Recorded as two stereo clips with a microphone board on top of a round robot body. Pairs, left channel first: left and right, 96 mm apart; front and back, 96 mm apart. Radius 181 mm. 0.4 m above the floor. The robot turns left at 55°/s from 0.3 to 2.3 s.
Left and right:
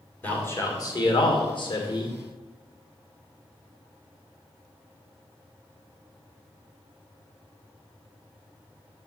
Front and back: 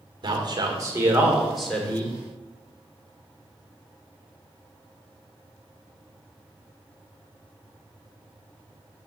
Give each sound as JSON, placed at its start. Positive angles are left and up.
{"t": 0.2, "sound": "a man speaking", "azimuth_deg": 160, "distance_m": 2.0}